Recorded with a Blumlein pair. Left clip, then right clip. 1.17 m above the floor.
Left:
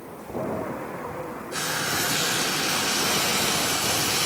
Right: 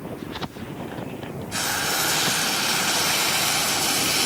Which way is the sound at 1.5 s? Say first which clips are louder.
Right 2 dB; 20° right.